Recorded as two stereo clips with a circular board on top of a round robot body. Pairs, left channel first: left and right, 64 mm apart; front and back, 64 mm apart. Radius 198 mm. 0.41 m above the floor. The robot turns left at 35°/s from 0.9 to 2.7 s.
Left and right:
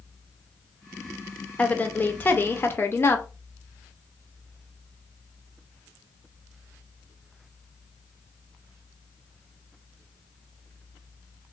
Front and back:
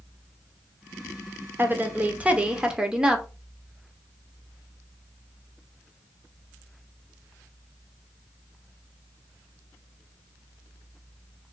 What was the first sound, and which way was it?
A woman speaking, 150° left.